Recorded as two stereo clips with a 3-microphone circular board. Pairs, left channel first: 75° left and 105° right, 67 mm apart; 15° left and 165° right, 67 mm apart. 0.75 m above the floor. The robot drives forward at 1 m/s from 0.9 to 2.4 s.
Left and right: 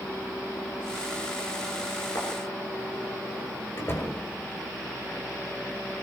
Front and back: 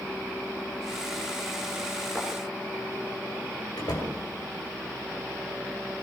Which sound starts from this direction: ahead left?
A door slam, at 3.8 s.